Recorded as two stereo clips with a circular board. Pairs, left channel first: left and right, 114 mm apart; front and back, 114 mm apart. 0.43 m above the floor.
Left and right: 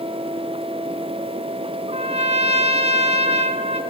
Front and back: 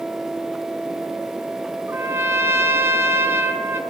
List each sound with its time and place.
1.9 s a trumpet: 110° right, 2.5 m